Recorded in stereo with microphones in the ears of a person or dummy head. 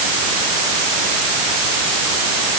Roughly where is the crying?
No crying in this recording.